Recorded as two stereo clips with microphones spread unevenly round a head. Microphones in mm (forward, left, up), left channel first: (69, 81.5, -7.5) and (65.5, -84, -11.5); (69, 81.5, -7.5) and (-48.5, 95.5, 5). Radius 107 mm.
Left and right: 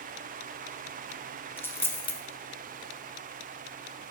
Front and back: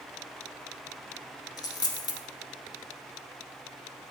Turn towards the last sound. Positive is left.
turn(degrees=25)